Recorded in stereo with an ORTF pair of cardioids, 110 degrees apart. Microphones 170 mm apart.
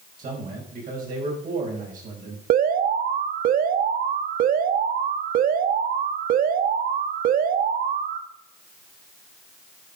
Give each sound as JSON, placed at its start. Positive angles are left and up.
{"t": 0.2, "sound": "a man speaking", "azimuth_deg": -55, "distance_m": 5.0}
{"t": 2.5, "sound": "an alarm", "azimuth_deg": -55, "distance_m": 1.1}